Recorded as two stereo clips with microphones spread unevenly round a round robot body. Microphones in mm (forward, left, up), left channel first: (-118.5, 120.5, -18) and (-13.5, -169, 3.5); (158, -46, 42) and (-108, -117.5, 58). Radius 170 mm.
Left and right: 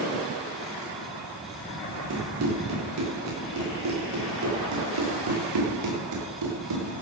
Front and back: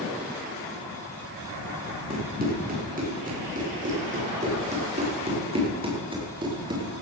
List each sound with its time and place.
2.1 s running footsteps: 105° right, 10 m; by 6.9 s 90° right, 7.5 m